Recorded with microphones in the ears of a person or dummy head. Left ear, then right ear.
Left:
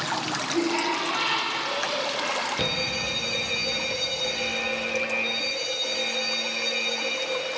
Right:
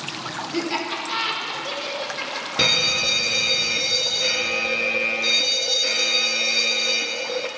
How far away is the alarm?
About 1.1 m.